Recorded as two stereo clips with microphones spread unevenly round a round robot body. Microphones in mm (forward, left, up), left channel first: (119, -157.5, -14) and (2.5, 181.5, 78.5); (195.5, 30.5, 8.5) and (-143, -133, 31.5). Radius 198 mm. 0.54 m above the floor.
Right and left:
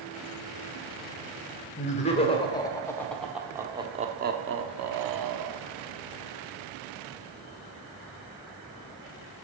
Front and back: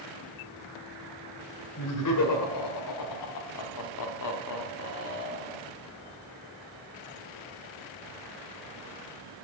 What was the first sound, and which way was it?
Laughter, 5° right.